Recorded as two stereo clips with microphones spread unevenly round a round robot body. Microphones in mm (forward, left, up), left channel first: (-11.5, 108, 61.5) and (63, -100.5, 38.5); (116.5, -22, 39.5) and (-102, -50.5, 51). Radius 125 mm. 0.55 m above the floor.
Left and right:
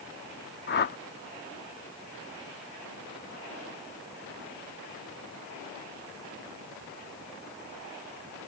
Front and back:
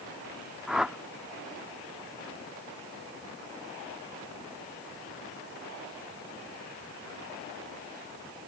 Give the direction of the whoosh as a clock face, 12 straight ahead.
9 o'clock.